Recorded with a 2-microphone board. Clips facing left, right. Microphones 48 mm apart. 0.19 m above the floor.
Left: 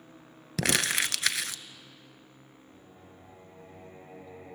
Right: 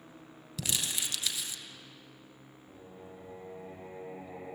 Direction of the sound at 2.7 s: 75° right (ahead or behind).